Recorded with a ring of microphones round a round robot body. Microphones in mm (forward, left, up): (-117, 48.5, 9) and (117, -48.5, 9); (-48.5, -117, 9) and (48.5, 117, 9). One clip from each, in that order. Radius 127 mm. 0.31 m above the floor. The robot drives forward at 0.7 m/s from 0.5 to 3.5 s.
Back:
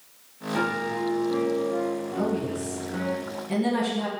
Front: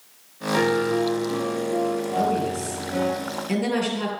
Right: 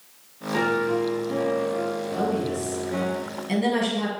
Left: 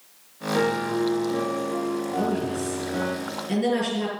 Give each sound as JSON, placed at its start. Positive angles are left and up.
{"t": 0.5, "sound": "a piano", "azimuth_deg": -65, "distance_m": 4.5}
{"t": 2.2, "sound": "a woman speaking", "azimuth_deg": -35, "distance_m": 6.5}